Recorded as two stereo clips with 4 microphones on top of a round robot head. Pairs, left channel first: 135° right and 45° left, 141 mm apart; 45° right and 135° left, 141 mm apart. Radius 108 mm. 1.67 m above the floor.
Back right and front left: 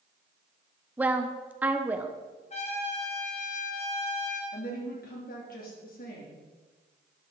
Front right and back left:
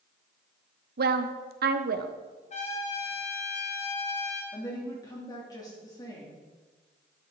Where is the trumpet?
90° right, 2.5 m.